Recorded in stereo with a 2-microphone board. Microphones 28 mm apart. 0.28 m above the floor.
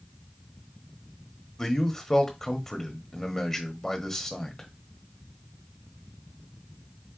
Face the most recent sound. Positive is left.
turn(degrees=15)  # may be behind; listen again after turning